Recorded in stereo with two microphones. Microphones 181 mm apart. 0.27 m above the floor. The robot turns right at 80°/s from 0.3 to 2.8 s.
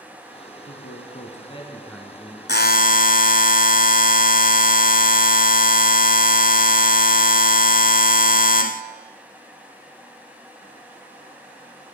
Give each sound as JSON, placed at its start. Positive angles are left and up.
{"t": 0.7, "sound": "a man speaking", "azimuth_deg": 75, "distance_m": 3.0}
{"t": 2.5, "sound": "a buzzer", "side_deg": 80, "distance_m": 0.8}